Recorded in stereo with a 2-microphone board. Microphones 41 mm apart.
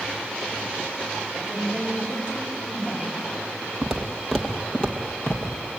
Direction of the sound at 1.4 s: 40° left (ahead or behind).